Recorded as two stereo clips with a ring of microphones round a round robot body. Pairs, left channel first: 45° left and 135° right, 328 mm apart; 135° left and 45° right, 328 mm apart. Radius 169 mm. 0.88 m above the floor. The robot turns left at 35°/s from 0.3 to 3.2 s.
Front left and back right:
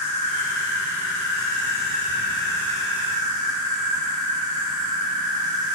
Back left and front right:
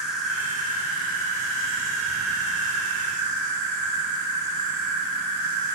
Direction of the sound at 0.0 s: 45° left.